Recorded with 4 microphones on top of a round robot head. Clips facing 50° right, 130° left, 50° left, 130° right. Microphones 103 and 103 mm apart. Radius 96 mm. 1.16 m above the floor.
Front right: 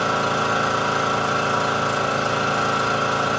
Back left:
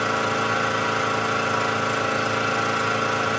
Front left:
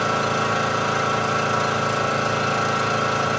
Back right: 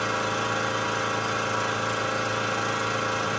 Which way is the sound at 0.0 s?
15° left.